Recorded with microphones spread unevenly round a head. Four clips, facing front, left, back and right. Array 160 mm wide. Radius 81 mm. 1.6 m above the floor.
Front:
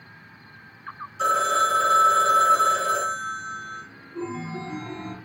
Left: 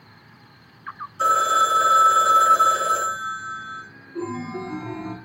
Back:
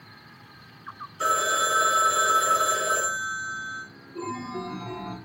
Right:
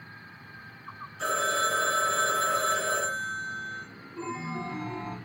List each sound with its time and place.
1.2 s a phone ringing: 50° left, 1.7 m
4.2 s a chime: 65° left, 1.5 m